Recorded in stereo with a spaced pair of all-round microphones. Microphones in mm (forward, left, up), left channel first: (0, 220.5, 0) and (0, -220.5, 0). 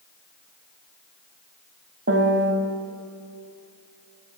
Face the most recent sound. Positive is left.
turn(degrees=-30)  # may be behind; listen again after turning